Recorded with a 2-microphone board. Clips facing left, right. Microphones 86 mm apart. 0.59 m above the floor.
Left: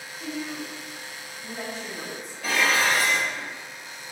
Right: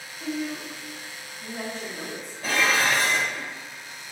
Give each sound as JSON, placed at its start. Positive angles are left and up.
{"t": 0.2, "sound": "a woman speaking", "side_deg": 0, "distance_m": 0.7}
{"t": 2.4, "sound": "dishes clattering", "side_deg": -35, "distance_m": 1.3}